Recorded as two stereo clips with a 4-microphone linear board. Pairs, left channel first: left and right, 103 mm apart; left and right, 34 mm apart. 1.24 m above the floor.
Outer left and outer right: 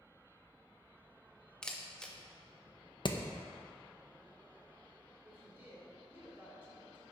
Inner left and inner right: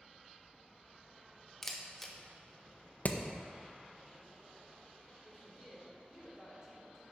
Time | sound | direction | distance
1.6 | a camera shutter | 10° left (ahead or behind) | 0.8 m
3.0 | hammering | 50° left (ahead or behind) | 0.6 m
5.2 | a woman speaking | 20° right (ahead or behind) | 3 m